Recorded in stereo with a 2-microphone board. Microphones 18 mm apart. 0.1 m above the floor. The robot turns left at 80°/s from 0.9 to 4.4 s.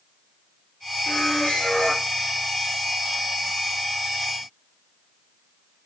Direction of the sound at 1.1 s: 115° left.